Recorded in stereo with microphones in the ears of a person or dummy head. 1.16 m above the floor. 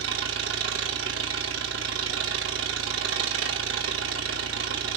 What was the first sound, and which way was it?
An engine running, 60° right (ahead or behind).